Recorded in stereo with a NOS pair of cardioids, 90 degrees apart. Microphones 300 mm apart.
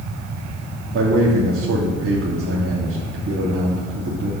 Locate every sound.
0.9 s a man speaking: 45° right, 2.5 m